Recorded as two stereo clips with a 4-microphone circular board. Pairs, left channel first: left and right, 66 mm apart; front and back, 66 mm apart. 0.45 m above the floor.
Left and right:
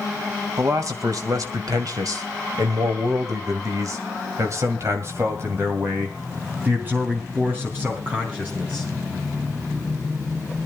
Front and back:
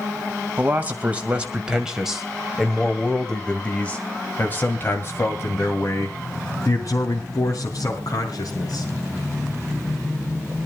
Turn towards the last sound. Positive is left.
turn(degrees=-20)